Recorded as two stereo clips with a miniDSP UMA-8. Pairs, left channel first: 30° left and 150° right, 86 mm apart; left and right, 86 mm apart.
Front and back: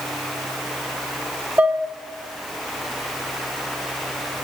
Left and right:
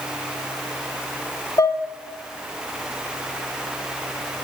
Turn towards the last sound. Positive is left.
turn(degrees=135)